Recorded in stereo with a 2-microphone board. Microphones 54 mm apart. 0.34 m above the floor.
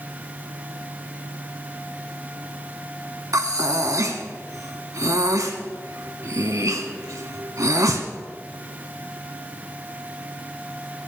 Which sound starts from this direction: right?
Breathing, at 3.3 s.